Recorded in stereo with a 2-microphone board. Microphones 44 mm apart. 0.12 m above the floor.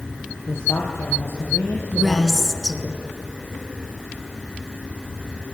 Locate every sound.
0.5 s a man speaking: 70° left (ahead or behind), 3 m
1.9 s a woman speaking: 10° right (ahead or behind), 1.4 m